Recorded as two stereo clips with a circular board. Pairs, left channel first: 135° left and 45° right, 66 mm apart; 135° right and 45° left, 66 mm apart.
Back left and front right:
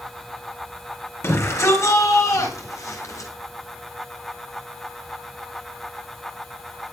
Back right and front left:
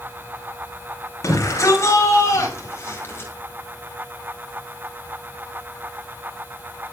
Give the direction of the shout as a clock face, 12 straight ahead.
6 o'clock.